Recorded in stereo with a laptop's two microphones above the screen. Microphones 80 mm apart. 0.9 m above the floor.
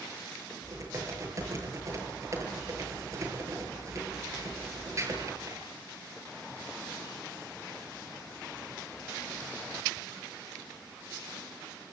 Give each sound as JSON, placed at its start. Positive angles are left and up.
{"t": 0.6, "sound": "typing on a keyboard", "side_deg": -40, "distance_m": 9.0}